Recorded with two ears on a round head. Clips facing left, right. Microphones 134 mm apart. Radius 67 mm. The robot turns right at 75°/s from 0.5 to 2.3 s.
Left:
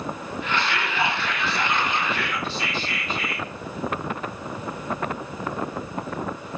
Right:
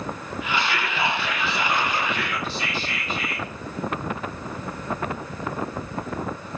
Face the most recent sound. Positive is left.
turn(degrees=-10)